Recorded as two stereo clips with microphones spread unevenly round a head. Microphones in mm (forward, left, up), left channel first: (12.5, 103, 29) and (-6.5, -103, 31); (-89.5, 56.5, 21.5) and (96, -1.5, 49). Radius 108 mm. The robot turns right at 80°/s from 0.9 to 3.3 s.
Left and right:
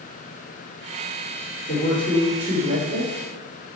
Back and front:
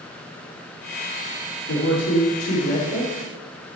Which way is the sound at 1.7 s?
125° left.